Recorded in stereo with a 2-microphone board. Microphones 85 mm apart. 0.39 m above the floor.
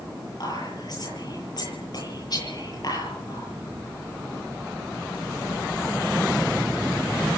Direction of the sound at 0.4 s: 55° left (ahead or behind).